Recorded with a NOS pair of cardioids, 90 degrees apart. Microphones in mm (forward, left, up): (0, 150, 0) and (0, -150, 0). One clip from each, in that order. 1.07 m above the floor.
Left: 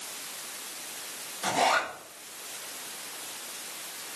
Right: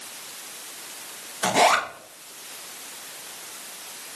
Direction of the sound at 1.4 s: 50° right.